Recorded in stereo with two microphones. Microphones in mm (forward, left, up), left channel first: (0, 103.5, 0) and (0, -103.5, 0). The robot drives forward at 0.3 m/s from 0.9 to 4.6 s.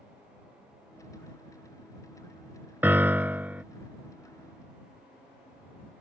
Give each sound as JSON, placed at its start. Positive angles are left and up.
{"t": 2.8, "sound": "a piano", "side_deg": -10}